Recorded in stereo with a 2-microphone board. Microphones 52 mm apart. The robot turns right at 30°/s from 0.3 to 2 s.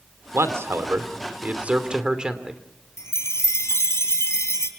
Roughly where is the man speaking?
Ahead right.